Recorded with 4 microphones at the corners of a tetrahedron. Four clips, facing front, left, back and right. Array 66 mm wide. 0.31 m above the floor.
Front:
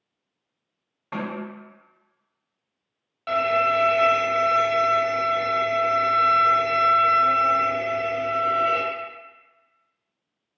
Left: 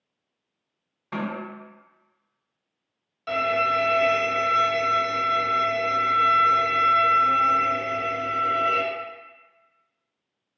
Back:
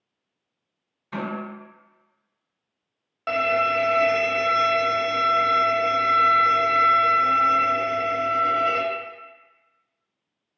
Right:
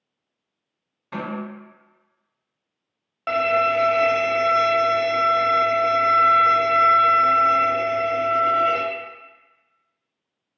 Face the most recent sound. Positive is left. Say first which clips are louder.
# right 3 dB, front 1 dB
turn(degrees=-110)